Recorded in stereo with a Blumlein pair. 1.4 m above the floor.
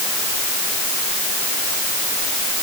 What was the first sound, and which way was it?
Only background noise.